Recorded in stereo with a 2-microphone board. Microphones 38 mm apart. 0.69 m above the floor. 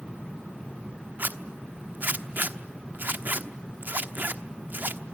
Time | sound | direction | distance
1.2 | a zipper | 55° right (ahead or behind) | 1.1 m